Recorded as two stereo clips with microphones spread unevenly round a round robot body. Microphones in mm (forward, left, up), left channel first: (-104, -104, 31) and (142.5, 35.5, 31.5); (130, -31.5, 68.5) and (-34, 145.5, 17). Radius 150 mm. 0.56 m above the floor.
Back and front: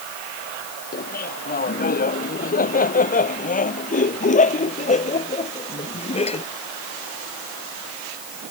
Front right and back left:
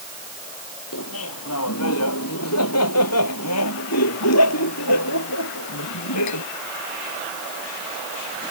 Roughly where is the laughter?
Right.